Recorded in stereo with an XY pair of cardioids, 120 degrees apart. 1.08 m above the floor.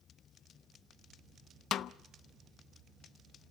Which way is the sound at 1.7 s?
55° left.